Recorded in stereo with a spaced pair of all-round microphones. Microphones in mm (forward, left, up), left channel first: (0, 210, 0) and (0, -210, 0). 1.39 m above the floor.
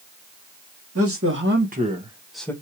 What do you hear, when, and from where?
0.9 s a man speaking: 35° right (ahead or behind), 1.5 m; by 2.5 s 5° left (ahead or behind), 1.0 m